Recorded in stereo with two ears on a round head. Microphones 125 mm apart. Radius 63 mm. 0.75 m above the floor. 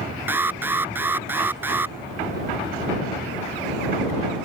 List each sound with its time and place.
0.3 s an alarm: 15° right (ahead or behind)